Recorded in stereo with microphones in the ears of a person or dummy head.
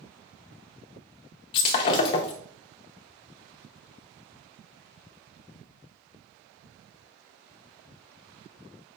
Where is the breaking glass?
30° left (ahead or behind), 0.7 m.